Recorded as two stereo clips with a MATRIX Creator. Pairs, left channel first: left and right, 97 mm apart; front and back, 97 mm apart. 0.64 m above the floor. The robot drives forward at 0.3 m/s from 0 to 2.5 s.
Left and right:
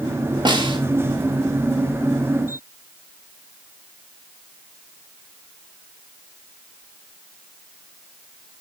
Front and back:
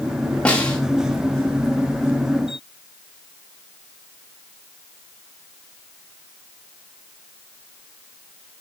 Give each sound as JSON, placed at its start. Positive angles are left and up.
{"t": 0.5, "sound": "a snare drum", "azimuth_deg": -75, "distance_m": 2.0}